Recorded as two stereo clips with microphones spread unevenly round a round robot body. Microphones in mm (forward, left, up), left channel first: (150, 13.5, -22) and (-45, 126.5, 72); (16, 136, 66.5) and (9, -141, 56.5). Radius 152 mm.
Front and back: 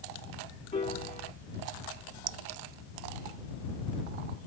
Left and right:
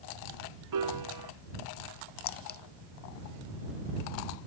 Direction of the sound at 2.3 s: 145° left.